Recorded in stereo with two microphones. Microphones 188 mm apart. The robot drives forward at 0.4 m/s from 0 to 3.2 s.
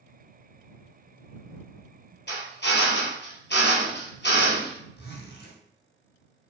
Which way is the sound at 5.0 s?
70° left (ahead or behind).